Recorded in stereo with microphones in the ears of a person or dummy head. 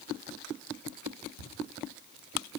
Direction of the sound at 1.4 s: 65° left (ahead or behind).